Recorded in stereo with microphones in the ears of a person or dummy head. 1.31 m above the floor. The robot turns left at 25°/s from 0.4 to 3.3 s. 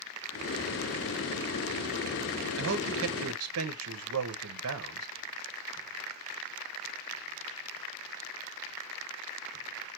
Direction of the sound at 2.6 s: 65° right (ahead or behind).